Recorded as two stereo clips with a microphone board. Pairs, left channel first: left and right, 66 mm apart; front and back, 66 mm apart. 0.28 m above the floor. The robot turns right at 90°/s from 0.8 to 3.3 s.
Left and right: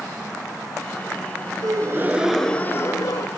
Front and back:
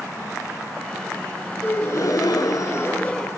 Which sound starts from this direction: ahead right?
A gasp, at 1.6 s.